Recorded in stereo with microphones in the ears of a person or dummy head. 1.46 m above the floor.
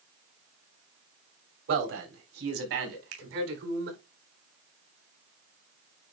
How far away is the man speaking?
About 4 m.